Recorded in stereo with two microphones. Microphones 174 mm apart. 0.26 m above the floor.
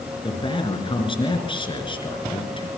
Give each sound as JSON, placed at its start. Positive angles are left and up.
{"t": 0.2, "sound": "a man speaking", "side_deg": 30, "distance_m": 4.0}